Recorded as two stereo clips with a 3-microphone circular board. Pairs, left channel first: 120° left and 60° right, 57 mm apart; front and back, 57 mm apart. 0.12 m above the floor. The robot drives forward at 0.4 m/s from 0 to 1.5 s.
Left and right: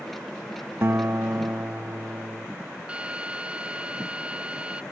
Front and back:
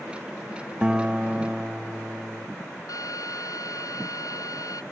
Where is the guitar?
105° right; by 2.5 s 110° right.